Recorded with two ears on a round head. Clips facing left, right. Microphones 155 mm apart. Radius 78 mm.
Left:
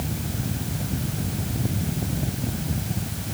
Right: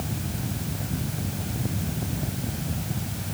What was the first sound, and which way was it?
Only background noise.